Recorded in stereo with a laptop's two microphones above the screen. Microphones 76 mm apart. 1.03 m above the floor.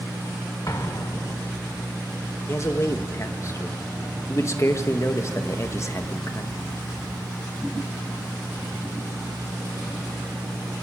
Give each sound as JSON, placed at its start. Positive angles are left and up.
{"t": 0.7, "sound": "an explosion", "side_deg": 50, "distance_m": 1.0}
{"t": 2.5, "sound": "a man speaking", "side_deg": 40, "distance_m": 1.5}